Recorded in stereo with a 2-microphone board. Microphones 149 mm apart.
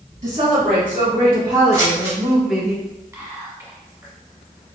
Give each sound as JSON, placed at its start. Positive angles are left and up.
{"t": 0.2, "sound": "a woman speaking", "side_deg": -50, "distance_m": 1.6}
{"t": 1.7, "sound": "scissors", "side_deg": -25, "distance_m": 1.4}
{"t": 3.1, "sound": "whispering", "side_deg": -20, "distance_m": 1.1}